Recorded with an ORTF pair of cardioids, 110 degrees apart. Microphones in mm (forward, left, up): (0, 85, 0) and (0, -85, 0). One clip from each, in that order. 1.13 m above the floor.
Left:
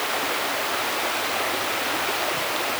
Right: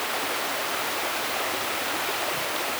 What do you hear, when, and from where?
0.0 s running water: 15° left